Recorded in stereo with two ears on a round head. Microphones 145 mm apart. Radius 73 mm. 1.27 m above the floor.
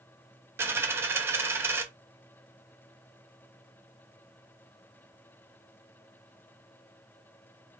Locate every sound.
0.6 s a dropped coin: 15° right (ahead or behind), 0.6 m